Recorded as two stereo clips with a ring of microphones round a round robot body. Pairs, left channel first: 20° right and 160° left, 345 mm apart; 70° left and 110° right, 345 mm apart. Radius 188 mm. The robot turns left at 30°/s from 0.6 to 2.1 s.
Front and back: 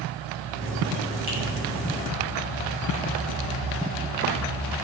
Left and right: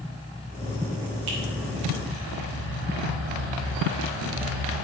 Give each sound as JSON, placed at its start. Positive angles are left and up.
{"t": 1.3, "sound": "a finger snap", "azimuth_deg": -135, "distance_m": 4.0}